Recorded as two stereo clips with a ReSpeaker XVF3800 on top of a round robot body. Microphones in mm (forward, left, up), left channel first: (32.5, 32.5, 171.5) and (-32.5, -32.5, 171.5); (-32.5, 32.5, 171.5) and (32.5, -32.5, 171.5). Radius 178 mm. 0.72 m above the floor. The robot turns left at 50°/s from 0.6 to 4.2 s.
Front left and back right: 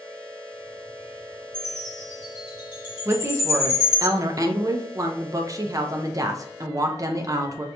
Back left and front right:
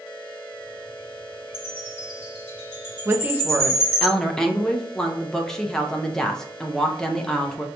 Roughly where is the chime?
Behind left.